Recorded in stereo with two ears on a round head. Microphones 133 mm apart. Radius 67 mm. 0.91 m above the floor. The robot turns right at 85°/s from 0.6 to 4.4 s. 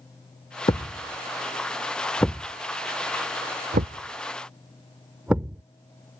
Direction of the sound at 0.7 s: 30° left (ahead or behind).